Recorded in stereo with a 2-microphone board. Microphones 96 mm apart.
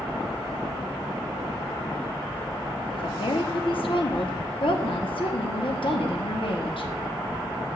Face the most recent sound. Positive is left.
turn(degrees=65)  # may be behind; listen again after turning